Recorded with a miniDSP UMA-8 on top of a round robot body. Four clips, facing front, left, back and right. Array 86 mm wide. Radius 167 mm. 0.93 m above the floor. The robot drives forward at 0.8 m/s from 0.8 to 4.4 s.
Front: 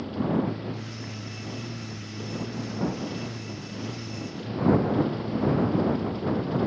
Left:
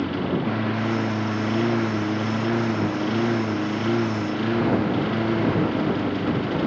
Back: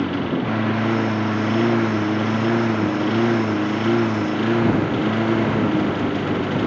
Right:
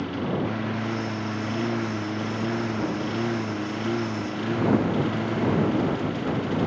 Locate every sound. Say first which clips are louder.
0.0 s a lawn mower: left 3 dB, back 5 dB; 165° left